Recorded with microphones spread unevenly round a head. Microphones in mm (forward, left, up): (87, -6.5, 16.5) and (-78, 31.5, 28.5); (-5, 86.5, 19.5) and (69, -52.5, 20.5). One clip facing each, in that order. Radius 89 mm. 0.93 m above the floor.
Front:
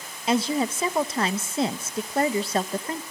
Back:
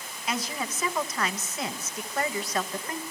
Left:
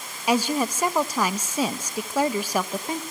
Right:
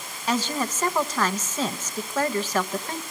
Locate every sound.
0.3 s a woman speaking: 40° left, 0.9 m